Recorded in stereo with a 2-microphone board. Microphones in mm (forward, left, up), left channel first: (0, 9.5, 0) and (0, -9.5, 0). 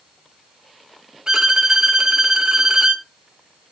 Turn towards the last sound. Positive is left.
turn(degrees=-45)  # may be behind; listen again after turning